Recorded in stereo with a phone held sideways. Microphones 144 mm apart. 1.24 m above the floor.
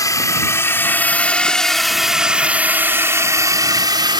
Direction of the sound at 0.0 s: 25° left (ahead or behind).